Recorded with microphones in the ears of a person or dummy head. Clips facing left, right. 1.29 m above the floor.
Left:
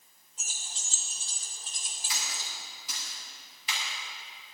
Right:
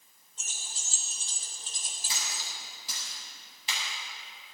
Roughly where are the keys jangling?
Centre.